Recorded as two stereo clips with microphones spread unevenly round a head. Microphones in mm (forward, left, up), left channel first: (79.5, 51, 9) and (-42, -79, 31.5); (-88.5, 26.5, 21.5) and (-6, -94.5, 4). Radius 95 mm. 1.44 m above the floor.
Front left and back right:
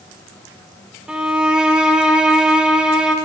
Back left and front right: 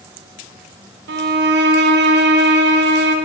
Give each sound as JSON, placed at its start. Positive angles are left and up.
{"t": 1.1, "sound": "a violin", "azimuth_deg": -50, "distance_m": 0.6}